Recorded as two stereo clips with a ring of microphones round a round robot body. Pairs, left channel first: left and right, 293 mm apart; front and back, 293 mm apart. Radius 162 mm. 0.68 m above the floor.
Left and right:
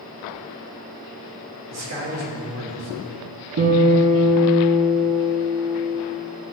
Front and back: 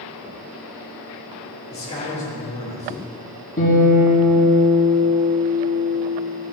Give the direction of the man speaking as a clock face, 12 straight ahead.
2 o'clock.